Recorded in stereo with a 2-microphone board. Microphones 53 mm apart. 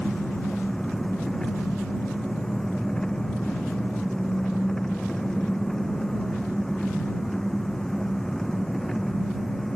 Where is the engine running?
10° left (ahead or behind).